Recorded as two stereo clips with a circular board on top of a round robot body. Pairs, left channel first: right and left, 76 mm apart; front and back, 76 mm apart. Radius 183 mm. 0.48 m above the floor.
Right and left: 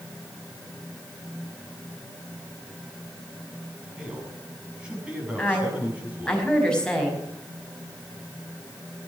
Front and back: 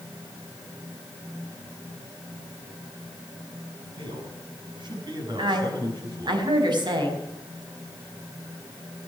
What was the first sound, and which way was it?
A man speaking, 170° left.